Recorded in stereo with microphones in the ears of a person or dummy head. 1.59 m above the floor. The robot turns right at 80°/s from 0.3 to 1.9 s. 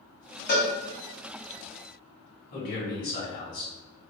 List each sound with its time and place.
0.5 s a cowbell: 45° left (ahead or behind), 0.7 m; by 0.7 s 30° left (ahead or behind), 0.7 m
2.5 s a man speaking: 45° left (ahead or behind), 1.2 m